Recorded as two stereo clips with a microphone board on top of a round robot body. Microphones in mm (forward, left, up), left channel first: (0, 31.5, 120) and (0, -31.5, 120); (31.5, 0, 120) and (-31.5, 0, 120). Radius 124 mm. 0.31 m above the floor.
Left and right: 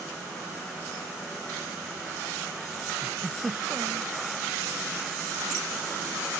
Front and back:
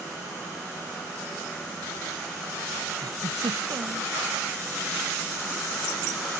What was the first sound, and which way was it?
A giggle, 165° right.